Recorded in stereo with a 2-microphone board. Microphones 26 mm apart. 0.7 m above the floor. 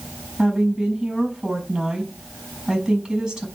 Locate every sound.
0.4 s a woman speaking: 35° right (ahead or behind), 4 m